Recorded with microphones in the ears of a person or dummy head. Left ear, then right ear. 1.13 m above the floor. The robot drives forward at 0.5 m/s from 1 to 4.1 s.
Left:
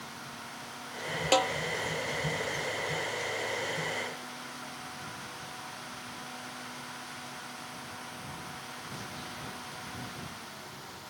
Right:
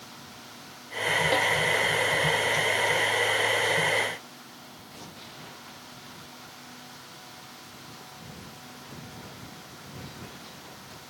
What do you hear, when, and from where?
1.3 s a snare drum: 65° left (ahead or behind)